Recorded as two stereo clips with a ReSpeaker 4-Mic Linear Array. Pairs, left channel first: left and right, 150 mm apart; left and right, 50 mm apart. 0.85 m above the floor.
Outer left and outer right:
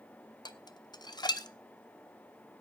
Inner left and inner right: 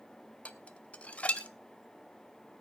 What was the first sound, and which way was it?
Dishes clattering, 25° left (ahead or behind).